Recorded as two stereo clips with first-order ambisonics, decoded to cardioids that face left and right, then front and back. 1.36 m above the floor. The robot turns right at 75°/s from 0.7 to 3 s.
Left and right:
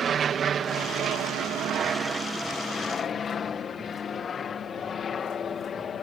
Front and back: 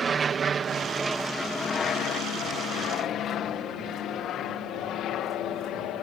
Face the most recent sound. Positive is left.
turn(degrees=30)